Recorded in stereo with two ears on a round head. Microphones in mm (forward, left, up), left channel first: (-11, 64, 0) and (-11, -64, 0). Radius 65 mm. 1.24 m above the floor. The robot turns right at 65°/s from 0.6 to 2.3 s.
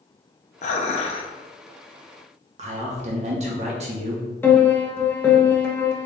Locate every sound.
0.6 s dishes clattering: 90° left, 0.7 m; by 1.3 s 135° left, 0.7 m
2.6 s a man speaking: 50° right (ahead or behind), 1.3 m
4.4 s a piano: 15° left (ahead or behind), 0.9 m